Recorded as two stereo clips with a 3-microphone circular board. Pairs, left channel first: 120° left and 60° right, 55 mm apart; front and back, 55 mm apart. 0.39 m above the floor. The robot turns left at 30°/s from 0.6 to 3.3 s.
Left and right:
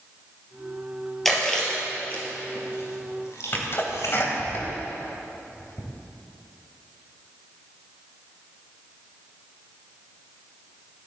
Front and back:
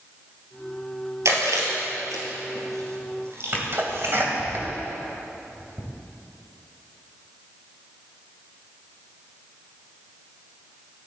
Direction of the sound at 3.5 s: 145° left.